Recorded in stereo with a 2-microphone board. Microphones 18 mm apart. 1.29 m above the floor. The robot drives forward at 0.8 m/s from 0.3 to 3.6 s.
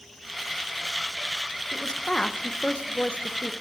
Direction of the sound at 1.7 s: 35° left (ahead or behind).